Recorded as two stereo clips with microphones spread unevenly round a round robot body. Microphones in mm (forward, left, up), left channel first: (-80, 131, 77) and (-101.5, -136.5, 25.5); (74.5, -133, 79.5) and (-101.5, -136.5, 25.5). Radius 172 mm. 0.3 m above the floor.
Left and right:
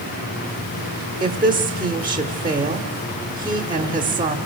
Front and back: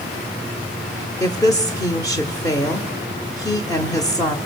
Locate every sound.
1.2 s a woman speaking: 85° right, 1.0 m